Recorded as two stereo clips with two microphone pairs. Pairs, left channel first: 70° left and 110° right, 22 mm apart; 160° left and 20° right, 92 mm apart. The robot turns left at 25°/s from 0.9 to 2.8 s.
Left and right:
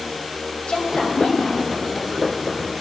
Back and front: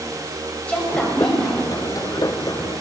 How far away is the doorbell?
I don't hear a doorbell.